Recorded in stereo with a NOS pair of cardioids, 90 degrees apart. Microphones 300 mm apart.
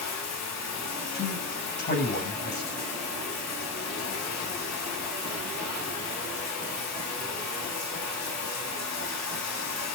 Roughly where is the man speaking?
Ahead left.